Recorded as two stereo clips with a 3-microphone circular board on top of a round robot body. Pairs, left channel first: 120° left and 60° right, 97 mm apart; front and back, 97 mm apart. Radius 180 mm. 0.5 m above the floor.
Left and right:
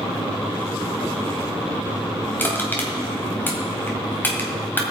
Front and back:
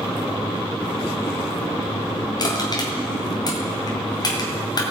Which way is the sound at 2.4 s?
50° left.